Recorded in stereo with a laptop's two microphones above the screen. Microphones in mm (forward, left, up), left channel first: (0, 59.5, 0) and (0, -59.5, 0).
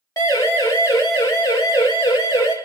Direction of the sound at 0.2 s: 30° left (ahead or behind).